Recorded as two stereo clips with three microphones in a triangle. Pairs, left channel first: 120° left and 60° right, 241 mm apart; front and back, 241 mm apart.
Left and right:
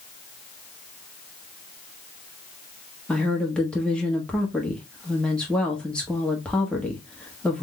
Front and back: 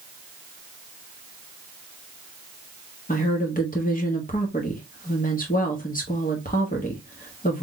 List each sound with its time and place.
3.1 s a woman speaking: 35° left, 1.1 m